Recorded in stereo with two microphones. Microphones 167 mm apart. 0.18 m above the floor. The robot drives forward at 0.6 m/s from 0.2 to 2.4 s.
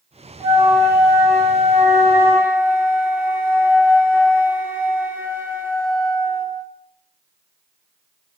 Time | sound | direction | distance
0.4 | a flute | 15° right (ahead or behind) | 1.3 m